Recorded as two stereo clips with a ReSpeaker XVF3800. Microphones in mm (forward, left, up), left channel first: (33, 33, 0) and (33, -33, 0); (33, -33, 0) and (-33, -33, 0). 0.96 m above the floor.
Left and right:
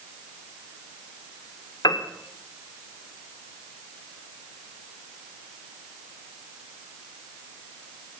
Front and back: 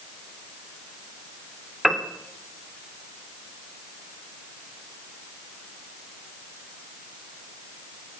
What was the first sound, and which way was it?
A piano, 95° left.